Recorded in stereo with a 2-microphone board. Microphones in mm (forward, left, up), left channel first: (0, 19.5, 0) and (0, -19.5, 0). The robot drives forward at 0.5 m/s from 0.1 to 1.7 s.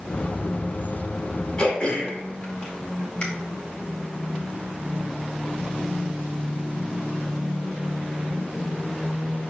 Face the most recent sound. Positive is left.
turn(degrees=25)  # may be behind; listen again after turning